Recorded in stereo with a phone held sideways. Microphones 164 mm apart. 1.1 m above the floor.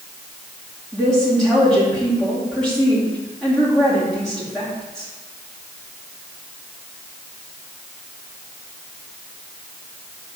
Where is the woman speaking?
5° left (ahead or behind), 2.5 m.